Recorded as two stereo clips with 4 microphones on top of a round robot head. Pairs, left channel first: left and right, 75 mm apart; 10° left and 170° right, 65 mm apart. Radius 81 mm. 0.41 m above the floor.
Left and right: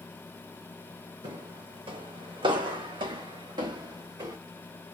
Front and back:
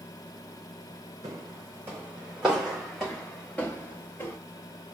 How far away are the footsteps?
About 1.7 m.